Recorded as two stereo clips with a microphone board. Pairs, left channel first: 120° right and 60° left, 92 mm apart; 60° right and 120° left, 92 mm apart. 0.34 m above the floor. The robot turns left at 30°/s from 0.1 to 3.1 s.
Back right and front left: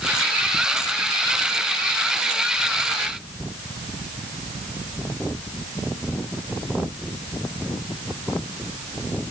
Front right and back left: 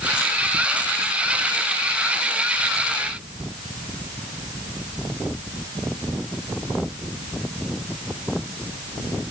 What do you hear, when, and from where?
Only background noise.